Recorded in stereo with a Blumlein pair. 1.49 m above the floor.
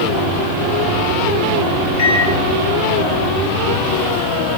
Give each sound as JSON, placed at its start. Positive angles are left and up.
{"t": 2.0, "sound": "a microwave", "azimuth_deg": 55, "distance_m": 1.2}